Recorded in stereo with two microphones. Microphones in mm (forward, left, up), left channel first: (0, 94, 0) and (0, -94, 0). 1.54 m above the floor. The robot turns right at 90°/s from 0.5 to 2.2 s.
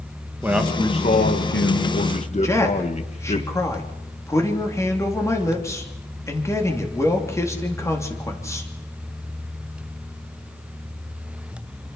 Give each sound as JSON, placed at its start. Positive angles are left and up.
{"t": 0.4, "sound": "a man speaking", "azimuth_deg": -10, "distance_m": 1.8}
{"t": 2.4, "sound": "a man speaking", "side_deg": 15, "distance_m": 3.0}